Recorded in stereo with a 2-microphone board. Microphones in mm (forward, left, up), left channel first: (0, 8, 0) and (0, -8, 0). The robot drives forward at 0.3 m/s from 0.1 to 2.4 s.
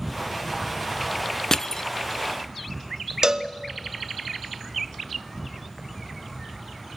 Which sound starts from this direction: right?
A cowbell, at 3.2 s.